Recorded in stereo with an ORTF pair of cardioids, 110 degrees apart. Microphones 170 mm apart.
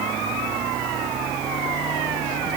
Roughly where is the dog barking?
No dog barking in this recording.